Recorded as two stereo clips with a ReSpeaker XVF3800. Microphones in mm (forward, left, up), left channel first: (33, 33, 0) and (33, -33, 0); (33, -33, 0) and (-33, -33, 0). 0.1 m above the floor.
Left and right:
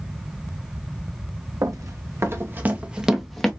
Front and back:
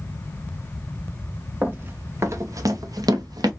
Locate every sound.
1.6 s running footsteps: 120° right, 1.3 m; by 3.5 s 175° left, 1.0 m